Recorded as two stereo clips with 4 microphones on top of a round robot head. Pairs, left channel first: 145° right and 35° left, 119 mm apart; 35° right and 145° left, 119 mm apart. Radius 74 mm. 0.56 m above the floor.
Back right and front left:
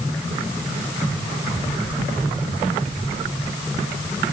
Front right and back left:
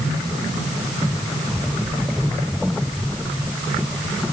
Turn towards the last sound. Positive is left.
No sound to turn to.